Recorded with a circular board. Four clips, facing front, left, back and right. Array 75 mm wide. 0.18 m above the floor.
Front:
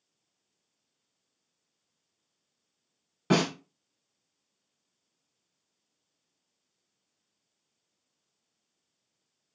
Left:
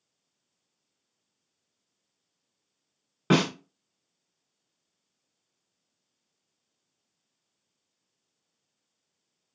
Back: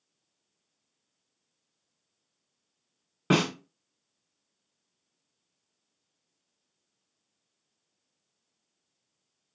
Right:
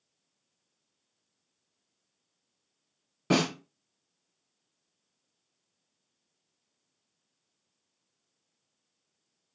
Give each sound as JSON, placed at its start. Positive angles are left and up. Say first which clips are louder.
{"t": 3.3, "sound": "a snare drum", "louder": "left 3 dB, even", "azimuth_deg": 125, "distance_m": 1.6}